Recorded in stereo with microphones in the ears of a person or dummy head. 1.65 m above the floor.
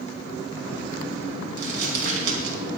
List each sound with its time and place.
1.6 s crumpling: 60° right (ahead or behind), 4.5 m